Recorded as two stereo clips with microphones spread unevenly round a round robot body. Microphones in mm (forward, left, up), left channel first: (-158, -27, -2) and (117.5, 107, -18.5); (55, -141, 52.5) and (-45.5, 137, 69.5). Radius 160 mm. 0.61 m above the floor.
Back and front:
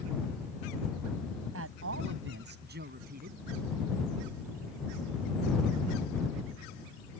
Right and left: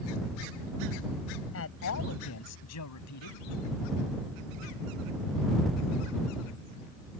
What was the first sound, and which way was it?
A man speaking, 25° right.